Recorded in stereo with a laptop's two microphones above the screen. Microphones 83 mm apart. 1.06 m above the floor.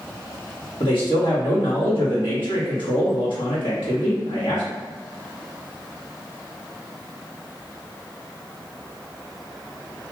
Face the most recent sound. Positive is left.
turn(degrees=75)  # may be behind; listen again after turning